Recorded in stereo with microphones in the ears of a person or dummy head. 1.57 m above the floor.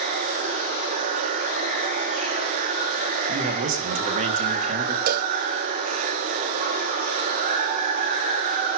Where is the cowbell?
50° right (ahead or behind), 0.9 m.